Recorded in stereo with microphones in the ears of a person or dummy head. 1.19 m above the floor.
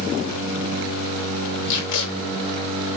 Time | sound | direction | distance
1.7 | tape being pulled | 75° left (ahead or behind) | 4.5 m